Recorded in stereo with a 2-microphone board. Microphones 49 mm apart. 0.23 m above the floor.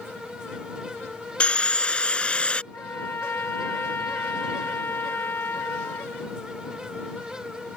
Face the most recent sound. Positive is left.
turn(degrees=55)  # may be behind; listen again after turning